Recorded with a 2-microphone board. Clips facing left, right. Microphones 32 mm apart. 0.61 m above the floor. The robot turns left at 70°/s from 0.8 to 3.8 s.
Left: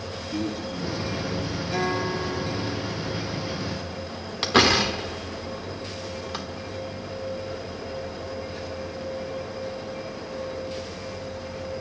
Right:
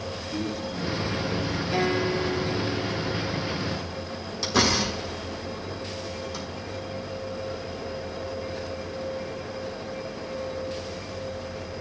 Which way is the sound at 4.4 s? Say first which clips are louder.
Left 4 dB; 50° left (ahead or behind).